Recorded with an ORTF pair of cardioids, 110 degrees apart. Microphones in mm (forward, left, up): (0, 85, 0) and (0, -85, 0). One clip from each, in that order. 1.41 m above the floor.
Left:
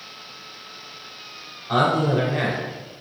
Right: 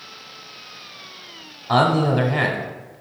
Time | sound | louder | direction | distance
1.7 | a man speaking | right 2 dB | 35° right | 0.7 m